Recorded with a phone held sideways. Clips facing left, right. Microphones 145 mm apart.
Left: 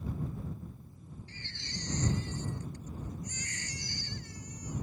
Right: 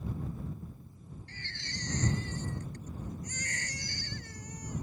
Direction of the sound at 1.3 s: 55° right (ahead or behind).